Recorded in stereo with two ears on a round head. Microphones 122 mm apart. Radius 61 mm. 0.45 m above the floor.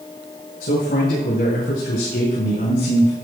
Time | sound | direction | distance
0.6 | a man speaking | 80° left | 6 m